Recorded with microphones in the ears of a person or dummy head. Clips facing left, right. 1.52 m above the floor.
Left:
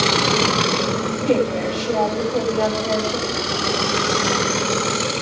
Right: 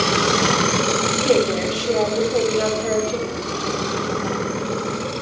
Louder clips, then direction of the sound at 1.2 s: Right 1 dB; 50° right (ahead or behind).